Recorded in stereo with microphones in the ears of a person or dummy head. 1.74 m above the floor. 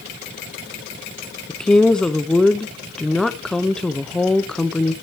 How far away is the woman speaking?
About 0.7 m.